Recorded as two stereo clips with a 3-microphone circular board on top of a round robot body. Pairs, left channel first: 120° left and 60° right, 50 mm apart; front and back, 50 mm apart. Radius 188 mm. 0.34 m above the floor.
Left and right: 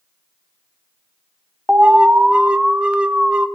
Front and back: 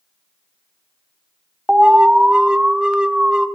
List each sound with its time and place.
1.7 s an alarm: 115° right, 0.8 m